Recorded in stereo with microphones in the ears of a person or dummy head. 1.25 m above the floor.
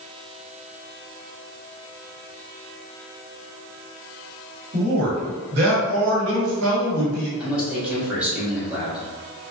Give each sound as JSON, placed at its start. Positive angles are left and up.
{"t": 4.7, "sound": "a man speaking", "side_deg": -40, "distance_m": 1.4}
{"t": 7.4, "sound": "a man speaking", "side_deg": -5, "distance_m": 1.0}